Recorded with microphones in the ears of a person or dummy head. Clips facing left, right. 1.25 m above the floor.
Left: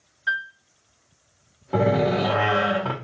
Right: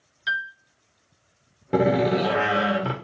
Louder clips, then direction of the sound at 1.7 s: Right 1 dB; 20° right (ahead or behind).